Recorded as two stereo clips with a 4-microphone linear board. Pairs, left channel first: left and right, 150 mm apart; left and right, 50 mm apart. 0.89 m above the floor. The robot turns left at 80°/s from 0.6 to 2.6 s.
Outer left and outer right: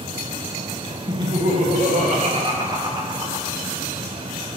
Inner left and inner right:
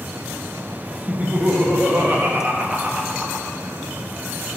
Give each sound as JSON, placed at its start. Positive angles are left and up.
{"t": 1.1, "sound": "laughter", "azimuth_deg": -25, "distance_m": 1.2}